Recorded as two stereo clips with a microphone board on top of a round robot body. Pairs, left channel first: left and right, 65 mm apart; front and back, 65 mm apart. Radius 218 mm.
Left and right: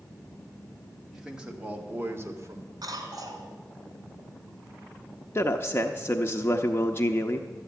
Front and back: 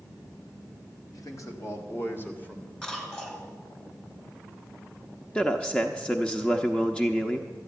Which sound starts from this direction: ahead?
A man speaking, at 1.1 s.